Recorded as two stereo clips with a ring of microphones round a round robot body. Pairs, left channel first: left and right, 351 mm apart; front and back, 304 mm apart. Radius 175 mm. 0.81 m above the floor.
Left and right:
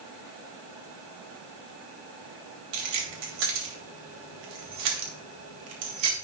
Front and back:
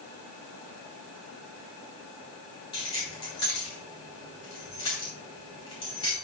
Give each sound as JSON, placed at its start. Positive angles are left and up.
{"t": 2.7, "sound": "keys jangling", "azimuth_deg": -75, "distance_m": 3.0}